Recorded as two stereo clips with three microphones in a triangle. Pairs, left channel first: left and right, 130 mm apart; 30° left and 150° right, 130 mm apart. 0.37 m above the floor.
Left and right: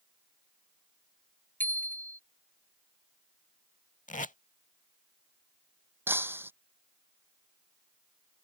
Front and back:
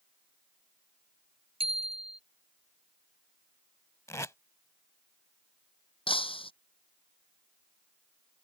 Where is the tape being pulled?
95° left.